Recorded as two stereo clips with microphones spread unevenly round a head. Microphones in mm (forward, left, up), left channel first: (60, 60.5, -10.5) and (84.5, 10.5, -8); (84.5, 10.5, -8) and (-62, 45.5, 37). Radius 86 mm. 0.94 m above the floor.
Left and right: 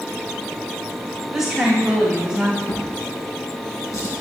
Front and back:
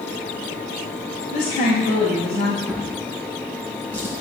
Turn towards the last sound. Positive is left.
turn(degrees=95)